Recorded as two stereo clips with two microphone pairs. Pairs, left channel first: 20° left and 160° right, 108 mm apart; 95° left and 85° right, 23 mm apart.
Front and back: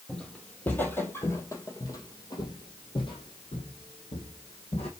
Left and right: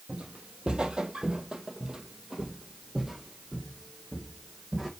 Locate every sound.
0.1 s footsteps: 65° right, 1.9 m; by 4.9 s straight ahead, 2.5 m